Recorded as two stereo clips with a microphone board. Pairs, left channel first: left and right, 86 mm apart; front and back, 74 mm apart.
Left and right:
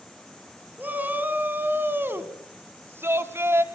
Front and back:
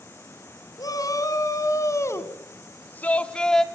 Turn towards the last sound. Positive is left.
turn(degrees=-80)